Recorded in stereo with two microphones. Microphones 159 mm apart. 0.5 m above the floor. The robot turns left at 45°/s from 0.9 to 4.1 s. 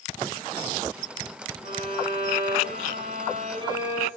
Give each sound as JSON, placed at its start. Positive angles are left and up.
{"t": 1.6, "sound": "a violin", "azimuth_deg": -60, "distance_m": 4.5}